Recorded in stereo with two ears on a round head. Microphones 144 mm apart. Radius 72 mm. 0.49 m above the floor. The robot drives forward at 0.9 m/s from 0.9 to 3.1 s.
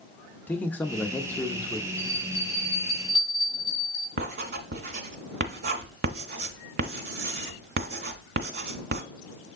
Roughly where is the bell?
Centre.